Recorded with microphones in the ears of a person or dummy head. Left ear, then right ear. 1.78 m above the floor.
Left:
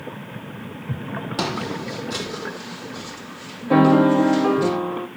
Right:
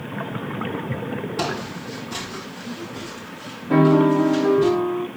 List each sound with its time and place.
1.4 s footsteps: 45° left (ahead or behind), 3.5 m; by 4.7 s 60° left (ahead or behind), 5 m
3.7 s a piano: 30° left (ahead or behind), 0.7 m